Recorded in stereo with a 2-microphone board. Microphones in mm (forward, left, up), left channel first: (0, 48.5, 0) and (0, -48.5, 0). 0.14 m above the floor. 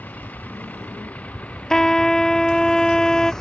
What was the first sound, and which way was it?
A vehicle, 15° left (ahead or behind).